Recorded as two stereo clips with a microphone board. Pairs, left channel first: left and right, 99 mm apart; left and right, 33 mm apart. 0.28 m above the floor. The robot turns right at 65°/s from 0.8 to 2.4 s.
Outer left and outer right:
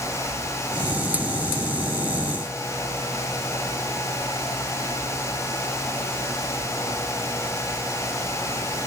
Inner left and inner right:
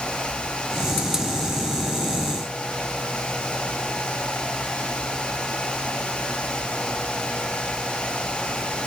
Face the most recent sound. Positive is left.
No sound to turn to.